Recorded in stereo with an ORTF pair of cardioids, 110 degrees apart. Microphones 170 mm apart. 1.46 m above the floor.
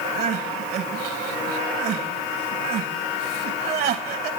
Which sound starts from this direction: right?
Crying, at 0.1 s.